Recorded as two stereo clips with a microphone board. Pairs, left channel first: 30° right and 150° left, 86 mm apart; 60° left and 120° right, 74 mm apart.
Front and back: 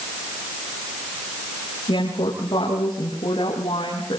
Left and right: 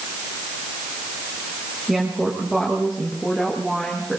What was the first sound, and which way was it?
A woman speaking, 30° right.